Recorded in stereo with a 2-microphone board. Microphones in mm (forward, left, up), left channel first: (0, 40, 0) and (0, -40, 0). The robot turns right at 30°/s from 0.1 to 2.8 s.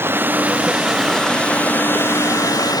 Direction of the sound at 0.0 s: 25° right.